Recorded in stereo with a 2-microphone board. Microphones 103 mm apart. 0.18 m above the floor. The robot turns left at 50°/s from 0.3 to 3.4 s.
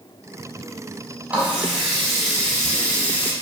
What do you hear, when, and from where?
1.3 s a running tap: 15° right (ahead or behind), 0.8 m; by 3.3 s 15° left (ahead or behind), 0.8 m